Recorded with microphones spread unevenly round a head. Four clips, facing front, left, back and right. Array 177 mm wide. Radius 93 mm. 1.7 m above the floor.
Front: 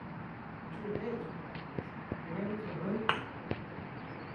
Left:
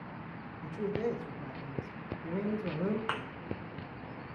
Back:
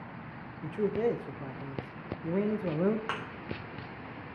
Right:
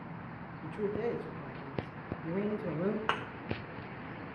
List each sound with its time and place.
0.6 s a man speaking: straight behind, 1.2 m
3.1 s a thud: 40° right, 1.0 m